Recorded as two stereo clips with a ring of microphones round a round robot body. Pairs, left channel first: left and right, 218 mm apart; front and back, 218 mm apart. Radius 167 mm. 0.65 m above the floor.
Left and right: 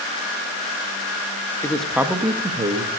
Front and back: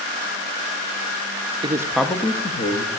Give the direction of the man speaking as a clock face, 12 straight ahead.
7 o'clock.